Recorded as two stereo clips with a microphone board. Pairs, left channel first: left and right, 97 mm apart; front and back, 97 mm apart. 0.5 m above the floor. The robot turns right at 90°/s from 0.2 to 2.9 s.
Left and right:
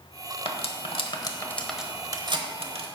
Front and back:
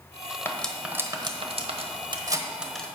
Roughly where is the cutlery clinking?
Ahead left.